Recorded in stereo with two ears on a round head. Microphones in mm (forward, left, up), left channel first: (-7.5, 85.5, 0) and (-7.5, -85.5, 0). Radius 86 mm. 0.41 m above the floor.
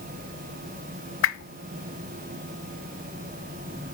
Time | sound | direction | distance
1.2 | a whoosh | 80° left | 0.6 m